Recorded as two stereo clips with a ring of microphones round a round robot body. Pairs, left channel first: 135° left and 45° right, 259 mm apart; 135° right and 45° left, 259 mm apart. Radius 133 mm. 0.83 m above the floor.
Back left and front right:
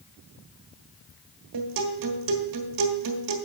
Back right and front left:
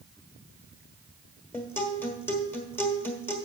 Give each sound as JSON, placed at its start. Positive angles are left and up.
{"t": 1.5, "sound": "a guitar", "azimuth_deg": -55, "distance_m": 1.2}